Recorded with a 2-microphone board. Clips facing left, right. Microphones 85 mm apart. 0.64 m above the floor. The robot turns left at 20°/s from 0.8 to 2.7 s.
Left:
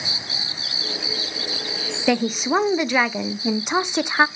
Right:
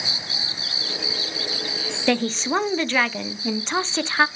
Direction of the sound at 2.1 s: 5° left (ahead or behind).